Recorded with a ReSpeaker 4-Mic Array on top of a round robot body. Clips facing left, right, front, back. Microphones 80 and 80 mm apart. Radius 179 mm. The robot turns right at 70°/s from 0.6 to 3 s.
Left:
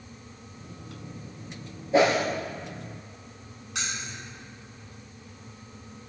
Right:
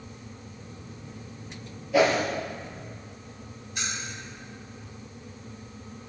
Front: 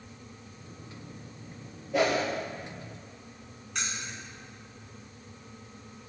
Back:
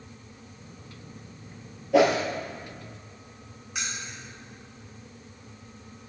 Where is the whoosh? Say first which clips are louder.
Left 1 dB, back 6 dB; 150° left, 3 m; by 2.2 s 175° left, 3 m.